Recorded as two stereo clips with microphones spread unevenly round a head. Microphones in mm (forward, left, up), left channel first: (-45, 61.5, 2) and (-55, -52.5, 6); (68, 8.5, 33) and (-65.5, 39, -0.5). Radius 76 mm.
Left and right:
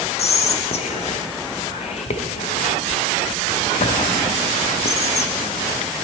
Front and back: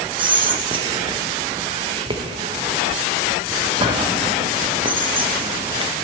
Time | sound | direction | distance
0.2 | whispering | 115° left | 0.7 m